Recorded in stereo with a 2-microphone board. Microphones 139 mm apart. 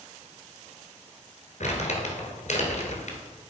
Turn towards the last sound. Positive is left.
turn(degrees=65)  # may be behind; listen again after turning